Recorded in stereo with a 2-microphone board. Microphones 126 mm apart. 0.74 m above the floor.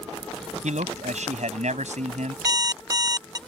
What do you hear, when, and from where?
0.6 s a man speaking: 80° right
2.5 s an alarm clock: 30° right (ahead or behind)